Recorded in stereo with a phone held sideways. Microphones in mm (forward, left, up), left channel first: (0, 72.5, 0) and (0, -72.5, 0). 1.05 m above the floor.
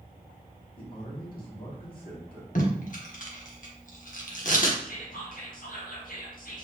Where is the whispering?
70° left (ahead or behind), 1.3 m.